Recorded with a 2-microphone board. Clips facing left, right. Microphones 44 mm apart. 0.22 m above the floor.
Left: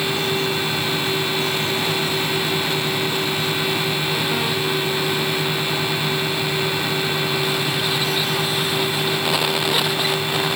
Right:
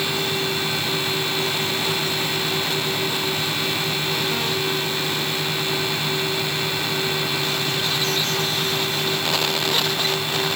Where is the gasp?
I don't hear a gasp.